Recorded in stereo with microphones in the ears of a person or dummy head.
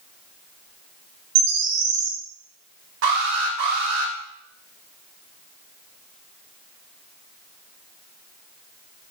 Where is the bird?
40° right (ahead or behind), 1.6 m.